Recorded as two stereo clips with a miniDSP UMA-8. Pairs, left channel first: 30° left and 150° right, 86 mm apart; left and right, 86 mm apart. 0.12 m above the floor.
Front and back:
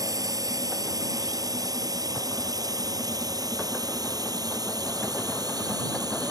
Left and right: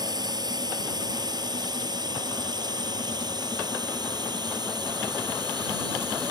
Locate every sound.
0.0 s a drone: 115° right